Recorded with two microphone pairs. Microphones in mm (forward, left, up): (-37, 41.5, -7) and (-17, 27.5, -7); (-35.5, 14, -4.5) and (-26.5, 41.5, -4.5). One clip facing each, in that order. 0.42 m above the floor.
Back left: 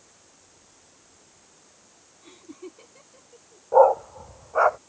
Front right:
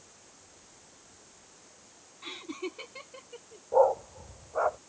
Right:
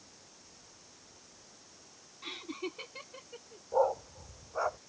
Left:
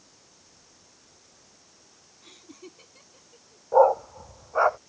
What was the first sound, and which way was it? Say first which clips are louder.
Laughter: front right 5 dB, right 8 dB; 65° right.